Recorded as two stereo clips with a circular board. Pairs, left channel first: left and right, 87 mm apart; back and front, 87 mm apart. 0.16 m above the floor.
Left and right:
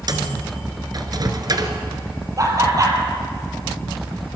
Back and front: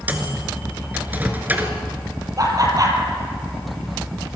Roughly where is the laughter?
Ahead right.